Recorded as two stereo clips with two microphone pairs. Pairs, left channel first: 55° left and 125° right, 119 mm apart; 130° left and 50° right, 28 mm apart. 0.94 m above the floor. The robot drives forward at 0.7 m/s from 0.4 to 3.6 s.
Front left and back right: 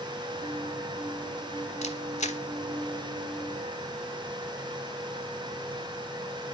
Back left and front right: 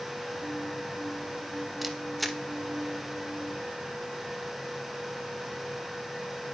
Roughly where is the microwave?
No microwave in this recording.